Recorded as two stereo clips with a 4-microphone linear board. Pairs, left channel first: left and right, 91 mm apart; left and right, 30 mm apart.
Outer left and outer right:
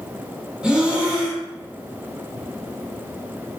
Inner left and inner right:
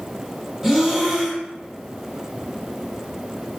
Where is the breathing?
10° right (ahead or behind), 0.5 m.